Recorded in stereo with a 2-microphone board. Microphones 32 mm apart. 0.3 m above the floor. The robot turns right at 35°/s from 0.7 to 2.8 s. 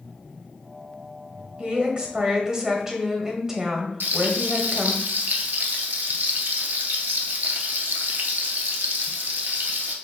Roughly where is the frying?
Right.